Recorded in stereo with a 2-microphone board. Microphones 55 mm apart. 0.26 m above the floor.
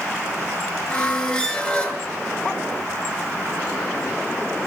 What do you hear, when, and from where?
0.9 s a squeak: 15° left (ahead or behind), 0.7 m